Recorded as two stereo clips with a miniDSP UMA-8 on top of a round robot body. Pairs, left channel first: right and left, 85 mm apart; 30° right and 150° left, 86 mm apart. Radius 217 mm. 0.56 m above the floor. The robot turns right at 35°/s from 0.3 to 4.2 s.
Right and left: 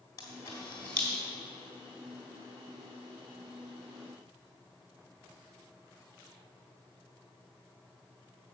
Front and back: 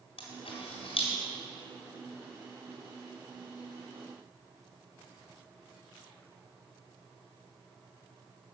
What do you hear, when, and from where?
0.2 s a camera shutter: 35° right, 2.0 m; by 1.1 s 10° right, 2.0 m